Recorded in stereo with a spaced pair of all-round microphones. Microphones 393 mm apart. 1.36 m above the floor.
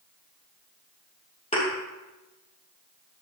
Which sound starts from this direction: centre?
A thud, at 1.5 s.